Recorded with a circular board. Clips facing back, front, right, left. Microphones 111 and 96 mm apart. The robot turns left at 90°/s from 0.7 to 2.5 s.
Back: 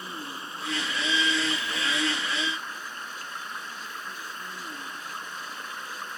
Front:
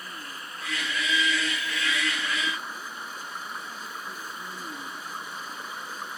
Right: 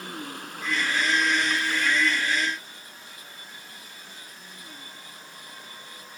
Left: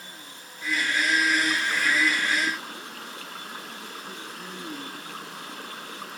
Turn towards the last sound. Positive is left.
turn(degrees=80)